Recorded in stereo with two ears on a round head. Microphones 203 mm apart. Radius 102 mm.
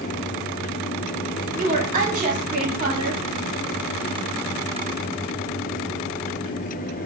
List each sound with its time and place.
1.6 s a woman speaking: 25° right (ahead or behind), 1.7 m